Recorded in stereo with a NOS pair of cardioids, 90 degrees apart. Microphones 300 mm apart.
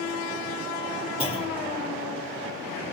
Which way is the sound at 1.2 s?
20° left.